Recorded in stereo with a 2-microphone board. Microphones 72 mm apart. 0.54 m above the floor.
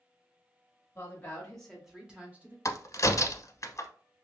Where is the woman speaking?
30° left (ahead or behind), 1.0 m; by 2.5 s 25° right (ahead or behind), 1.1 m.